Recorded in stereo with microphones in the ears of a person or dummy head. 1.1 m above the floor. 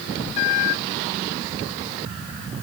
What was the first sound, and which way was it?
Only background noise.